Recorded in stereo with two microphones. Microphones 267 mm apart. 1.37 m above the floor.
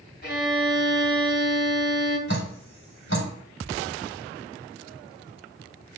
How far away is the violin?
About 3 m.